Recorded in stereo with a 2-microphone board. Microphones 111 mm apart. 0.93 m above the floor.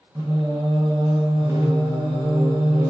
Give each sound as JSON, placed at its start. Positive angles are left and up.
{"t": 0.1, "sound": "singing", "side_deg": -30, "distance_m": 0.6}